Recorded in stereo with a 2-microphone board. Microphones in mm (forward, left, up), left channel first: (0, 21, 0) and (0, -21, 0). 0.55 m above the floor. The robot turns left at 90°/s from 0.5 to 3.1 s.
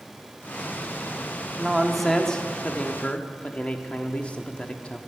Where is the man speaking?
15° right (ahead or behind), 0.9 m; by 5.0 s 30° left (ahead or behind), 0.9 m.